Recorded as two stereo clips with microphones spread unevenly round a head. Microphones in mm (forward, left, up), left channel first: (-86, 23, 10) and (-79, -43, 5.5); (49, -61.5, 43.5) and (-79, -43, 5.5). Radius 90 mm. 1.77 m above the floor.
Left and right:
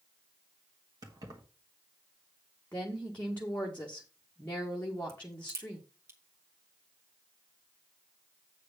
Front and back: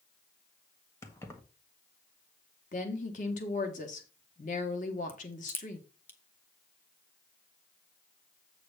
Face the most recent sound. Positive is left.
turn(degrees=-45)